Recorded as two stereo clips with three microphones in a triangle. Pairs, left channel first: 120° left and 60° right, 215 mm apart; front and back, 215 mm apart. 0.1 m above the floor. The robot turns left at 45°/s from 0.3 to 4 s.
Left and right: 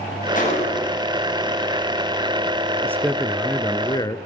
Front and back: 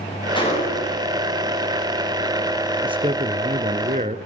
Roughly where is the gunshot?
Left.